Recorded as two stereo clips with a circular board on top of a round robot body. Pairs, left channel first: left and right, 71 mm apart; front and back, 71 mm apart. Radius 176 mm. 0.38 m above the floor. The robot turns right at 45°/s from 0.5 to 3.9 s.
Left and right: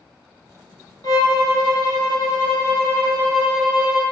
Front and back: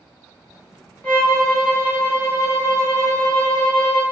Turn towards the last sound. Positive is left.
turn(degrees=-165)